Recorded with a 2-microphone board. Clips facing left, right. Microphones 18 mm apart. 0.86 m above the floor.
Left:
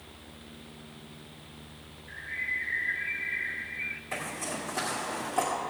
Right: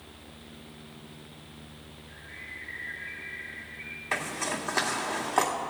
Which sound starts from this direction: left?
A bird, at 2.1 s.